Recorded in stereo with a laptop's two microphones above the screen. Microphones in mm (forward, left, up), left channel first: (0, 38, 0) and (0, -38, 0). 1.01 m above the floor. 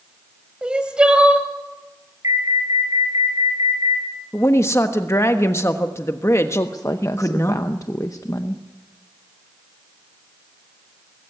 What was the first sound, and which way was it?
Crying, 15° right (ahead or behind).